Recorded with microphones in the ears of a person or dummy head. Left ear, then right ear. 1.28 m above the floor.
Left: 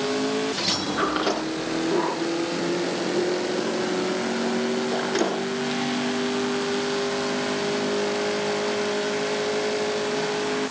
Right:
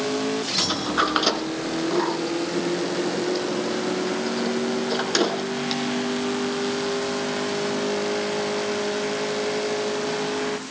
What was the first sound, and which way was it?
A sliding door, 40° right (ahead or behind).